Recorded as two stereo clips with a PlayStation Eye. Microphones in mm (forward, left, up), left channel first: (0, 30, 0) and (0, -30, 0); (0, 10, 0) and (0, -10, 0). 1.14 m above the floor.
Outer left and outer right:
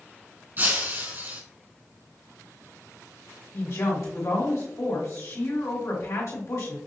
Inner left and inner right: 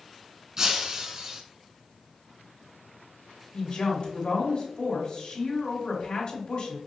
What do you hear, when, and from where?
0.6 s breaking glass: 35° right (ahead or behind), 1.4 m
3.5 s a woman speaking: 60° left (ahead or behind), 2.5 m